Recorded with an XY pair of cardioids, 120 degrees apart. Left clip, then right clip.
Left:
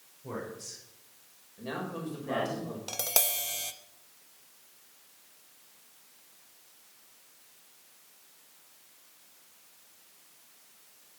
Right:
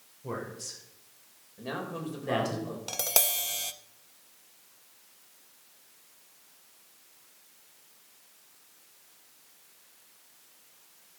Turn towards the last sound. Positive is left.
turn(degrees=-10)